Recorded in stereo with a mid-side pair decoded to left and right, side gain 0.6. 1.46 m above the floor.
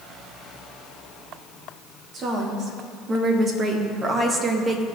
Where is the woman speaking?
45° right, 3 m; by 4.8 s 25° right, 1.4 m.